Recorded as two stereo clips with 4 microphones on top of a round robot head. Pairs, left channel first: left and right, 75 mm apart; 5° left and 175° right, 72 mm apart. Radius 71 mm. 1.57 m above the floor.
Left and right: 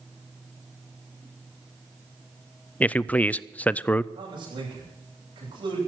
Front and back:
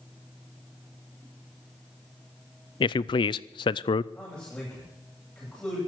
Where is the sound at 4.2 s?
75° right, 10 m.